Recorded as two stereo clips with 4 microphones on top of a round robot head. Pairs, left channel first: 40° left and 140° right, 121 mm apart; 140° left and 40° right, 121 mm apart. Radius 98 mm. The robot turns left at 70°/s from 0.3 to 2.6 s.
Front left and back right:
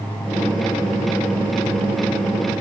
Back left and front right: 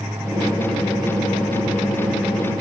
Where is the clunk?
No clunk in this recording.